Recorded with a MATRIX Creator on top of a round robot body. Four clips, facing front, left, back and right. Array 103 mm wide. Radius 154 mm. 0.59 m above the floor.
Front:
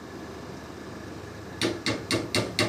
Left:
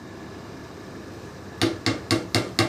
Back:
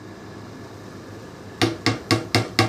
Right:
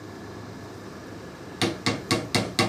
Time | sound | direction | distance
1.6 | hammering | 170° left | 0.9 m